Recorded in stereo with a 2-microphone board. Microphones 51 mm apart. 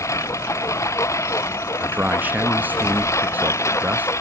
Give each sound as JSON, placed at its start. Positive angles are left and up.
{"t": 0.0, "sound": "a lawn mower", "side_deg": 85}
{"t": 1.8, "sound": "a man speaking", "side_deg": -35}